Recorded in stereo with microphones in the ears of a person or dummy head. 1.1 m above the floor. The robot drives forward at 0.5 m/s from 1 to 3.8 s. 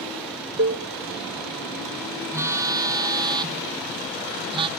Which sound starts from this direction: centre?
A phone buzzing, at 2.3 s.